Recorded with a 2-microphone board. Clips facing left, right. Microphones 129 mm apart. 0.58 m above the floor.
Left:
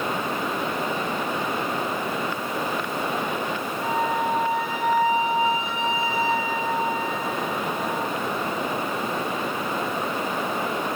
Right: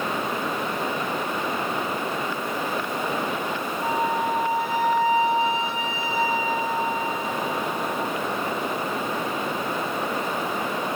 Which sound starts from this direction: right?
A flute, at 3.8 s.